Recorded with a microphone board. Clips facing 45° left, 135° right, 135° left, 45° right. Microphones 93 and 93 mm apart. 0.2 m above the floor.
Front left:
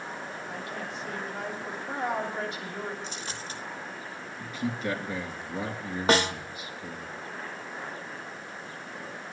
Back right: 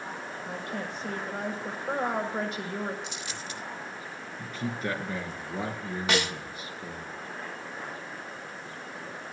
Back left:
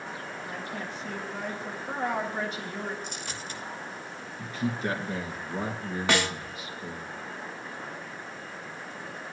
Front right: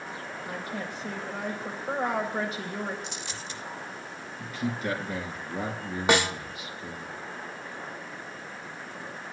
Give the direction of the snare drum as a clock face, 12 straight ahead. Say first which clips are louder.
Front left 5 dB, front right 3 dB; 11 o'clock.